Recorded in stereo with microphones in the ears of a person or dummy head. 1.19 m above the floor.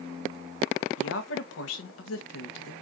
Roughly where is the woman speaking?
Left.